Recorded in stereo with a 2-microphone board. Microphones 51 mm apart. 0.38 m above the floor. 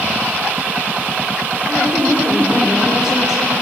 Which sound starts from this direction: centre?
A woman speaking, at 1.7 s.